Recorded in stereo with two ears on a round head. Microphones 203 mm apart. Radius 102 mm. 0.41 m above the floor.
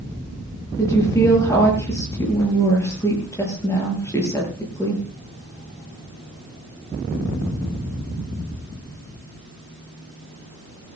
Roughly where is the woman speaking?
Centre.